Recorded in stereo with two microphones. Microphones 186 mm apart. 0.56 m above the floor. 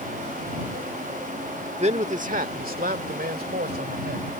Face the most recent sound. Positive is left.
turn(degrees=-65)  # may be behind; listen again after turning